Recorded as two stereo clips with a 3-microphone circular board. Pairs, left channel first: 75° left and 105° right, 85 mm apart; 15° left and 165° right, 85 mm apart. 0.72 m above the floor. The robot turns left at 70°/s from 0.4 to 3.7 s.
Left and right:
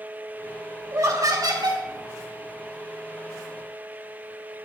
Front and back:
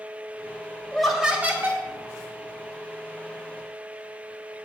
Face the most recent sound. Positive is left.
turn(degrees=105)